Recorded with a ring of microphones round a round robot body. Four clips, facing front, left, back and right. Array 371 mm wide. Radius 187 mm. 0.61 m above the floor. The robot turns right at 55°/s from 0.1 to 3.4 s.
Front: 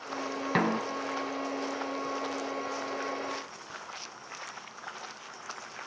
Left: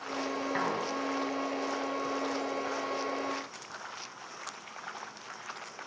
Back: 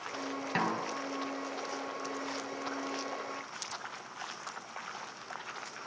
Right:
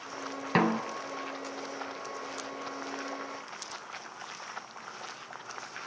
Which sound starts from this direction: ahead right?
A snare drum, at 0.6 s.